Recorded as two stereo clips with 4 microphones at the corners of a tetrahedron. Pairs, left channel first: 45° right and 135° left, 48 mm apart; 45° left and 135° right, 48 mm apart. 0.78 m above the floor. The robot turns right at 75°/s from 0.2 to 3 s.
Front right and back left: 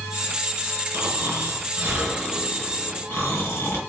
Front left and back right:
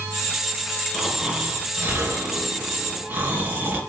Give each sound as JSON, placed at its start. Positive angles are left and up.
{"t": 0.9, "sound": "snoring", "azimuth_deg": 120, "distance_m": 4.5}